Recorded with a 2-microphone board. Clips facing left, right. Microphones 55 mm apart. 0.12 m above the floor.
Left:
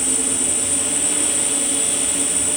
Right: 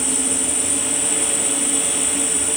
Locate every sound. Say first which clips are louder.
0.0 s an insect: right 1 dB; 25° right (ahead or behind), 2 m